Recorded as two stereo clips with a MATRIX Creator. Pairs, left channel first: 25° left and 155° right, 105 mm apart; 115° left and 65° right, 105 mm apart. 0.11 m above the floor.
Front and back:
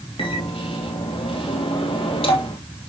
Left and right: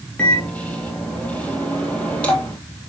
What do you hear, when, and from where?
0.2 s a microwave: 35° left, 3 m